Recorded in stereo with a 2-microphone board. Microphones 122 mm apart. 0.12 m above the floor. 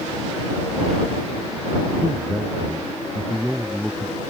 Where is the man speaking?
5° left (ahead or behind).